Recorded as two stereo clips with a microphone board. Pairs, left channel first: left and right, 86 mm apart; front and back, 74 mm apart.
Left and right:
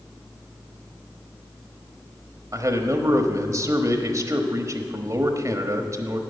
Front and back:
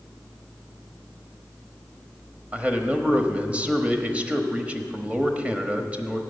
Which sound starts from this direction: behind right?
A man speaking, at 2.5 s.